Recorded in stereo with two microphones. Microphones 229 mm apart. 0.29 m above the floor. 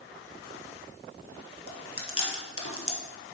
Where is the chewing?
70° left (ahead or behind), 1.3 m.